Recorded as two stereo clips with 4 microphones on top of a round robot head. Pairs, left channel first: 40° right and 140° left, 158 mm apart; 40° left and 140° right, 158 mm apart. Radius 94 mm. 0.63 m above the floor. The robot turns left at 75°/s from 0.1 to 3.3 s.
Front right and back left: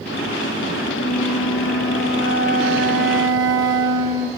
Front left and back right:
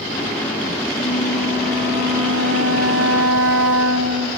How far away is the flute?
About 7 m.